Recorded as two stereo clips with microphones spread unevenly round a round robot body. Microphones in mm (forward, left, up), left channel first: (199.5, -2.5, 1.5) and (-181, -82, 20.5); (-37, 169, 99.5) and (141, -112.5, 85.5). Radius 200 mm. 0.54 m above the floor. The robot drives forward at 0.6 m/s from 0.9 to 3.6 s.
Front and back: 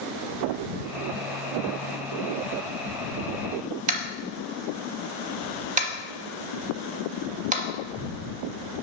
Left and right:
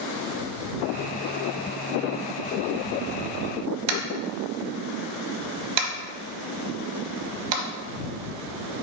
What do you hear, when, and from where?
3.9 s tapping: 95° right, 0.9 m